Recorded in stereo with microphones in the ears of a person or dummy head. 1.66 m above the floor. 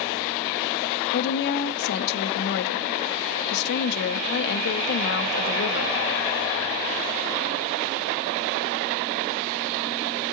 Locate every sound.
1.1 s a woman speaking: 65° left (ahead or behind), 0.5 m